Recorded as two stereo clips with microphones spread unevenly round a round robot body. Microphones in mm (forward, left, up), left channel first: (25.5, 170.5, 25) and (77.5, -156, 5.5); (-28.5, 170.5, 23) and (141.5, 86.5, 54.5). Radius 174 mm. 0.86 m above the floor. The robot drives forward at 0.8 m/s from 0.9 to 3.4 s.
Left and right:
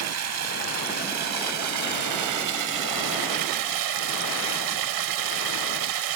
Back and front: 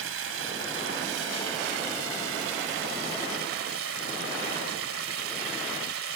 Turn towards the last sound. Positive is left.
turn(degrees=-60)